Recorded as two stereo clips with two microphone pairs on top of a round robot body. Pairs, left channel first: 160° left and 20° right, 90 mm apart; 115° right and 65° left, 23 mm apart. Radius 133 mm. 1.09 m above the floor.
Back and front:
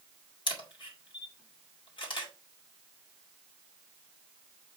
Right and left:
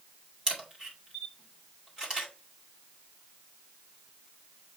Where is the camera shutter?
120° left, 2.5 m.